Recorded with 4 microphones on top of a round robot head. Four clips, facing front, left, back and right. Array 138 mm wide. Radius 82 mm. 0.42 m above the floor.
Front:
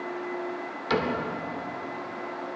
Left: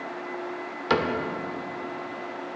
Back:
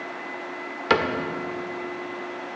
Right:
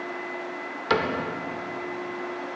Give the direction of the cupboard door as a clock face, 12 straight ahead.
6 o'clock.